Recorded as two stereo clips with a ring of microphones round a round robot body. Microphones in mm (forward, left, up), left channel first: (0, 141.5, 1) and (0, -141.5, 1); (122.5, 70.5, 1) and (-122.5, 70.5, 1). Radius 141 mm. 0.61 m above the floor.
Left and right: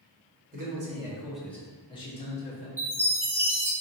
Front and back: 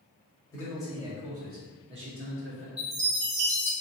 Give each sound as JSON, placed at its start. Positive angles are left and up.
{"t": 0.5, "sound": "a man speaking", "azimuth_deg": -65, "distance_m": 0.9}
{"t": 2.8, "sound": "a chime", "azimuth_deg": -160, "distance_m": 1.1}